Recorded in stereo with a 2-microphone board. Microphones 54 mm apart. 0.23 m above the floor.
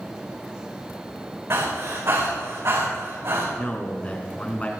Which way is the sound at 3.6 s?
25° left (ahead or behind).